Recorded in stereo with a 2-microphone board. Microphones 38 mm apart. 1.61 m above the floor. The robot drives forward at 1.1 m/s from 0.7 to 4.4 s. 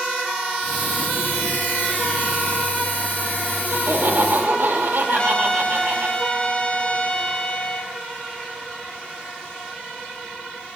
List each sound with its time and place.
3.7 s laughter: 85° right, 3 m; by 6.1 s 75° right (ahead or behind), 3 m
5.1 s a trumpet: 30° left (ahead or behind), 1.9 m